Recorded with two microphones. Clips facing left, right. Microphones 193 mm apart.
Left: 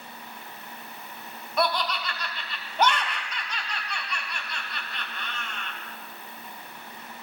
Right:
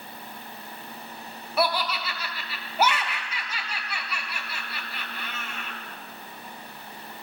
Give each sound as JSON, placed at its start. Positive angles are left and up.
{"t": 1.6, "sound": "laughter", "side_deg": -5, "distance_m": 0.7}